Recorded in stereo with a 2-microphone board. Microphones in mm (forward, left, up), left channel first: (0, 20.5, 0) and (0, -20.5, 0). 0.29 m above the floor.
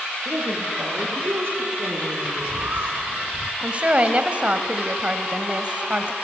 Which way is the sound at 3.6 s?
30° right (ahead or behind).